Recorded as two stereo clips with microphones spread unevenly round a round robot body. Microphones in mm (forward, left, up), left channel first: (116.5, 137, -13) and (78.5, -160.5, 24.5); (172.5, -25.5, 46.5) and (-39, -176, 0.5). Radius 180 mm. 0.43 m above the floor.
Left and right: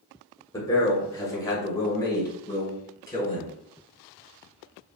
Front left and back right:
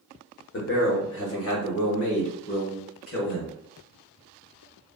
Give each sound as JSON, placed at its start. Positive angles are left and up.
{"t": 0.5, "sound": "a man speaking", "azimuth_deg": 20, "distance_m": 1.0}